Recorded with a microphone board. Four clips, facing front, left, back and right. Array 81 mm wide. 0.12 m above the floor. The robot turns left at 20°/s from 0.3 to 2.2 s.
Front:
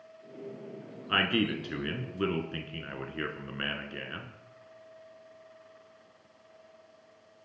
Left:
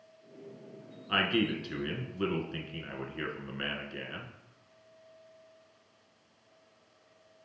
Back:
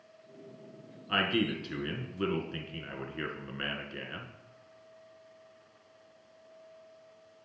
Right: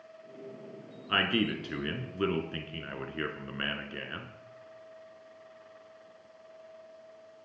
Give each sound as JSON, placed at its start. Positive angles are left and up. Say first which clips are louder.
{"t": 1.1, "sound": "a man speaking", "louder": "even, front 1 dB", "azimuth_deg": -35, "distance_m": 1.1}